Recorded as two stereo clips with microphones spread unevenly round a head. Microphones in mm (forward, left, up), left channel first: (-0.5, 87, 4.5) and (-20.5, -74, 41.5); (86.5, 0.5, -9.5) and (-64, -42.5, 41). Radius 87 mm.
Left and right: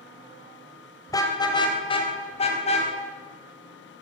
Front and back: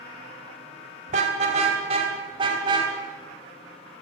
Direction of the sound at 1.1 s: 155° left.